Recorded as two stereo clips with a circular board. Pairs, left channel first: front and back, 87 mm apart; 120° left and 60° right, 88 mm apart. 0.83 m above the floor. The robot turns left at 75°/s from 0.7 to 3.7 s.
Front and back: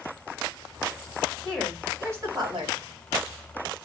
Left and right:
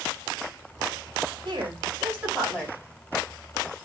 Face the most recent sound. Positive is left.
turn(degrees=125)